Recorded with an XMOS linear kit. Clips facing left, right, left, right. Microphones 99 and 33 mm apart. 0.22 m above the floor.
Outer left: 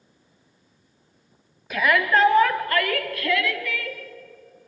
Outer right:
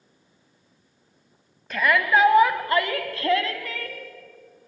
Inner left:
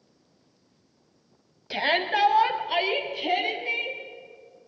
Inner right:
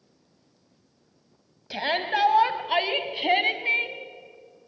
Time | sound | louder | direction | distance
1.7 | a shout | even, inner left 2 dB | 5° left (ahead or behind) | 1.7 m